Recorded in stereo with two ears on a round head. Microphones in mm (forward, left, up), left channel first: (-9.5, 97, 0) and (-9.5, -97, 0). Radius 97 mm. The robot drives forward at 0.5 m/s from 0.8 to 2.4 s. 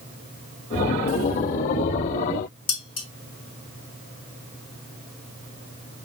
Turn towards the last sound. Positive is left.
turn(degrees=75)  # may be behind; listen again after turning